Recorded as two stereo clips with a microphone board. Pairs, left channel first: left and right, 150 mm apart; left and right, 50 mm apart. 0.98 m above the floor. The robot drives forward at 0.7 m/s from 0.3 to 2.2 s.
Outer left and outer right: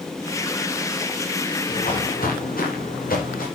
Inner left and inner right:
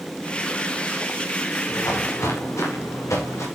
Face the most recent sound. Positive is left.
turn(degrees=80)